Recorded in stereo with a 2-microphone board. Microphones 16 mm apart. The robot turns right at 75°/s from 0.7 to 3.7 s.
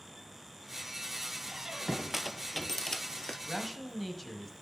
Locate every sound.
1.5 s a squeak: 70° right (ahead or behind), 0.5 m; by 3.4 s 65° left (ahead or behind), 0.5 m
3.5 s a man speaking: centre (ahead or behind), 1.1 m; by 4.5 s 5° left (ahead or behind), 1.1 m